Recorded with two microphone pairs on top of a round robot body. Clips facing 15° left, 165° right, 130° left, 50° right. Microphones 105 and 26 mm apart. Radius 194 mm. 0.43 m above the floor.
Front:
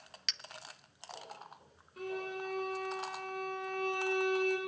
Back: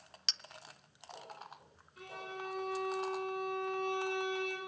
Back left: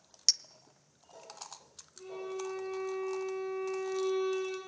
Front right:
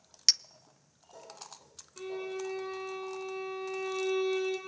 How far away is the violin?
About 6.5 m.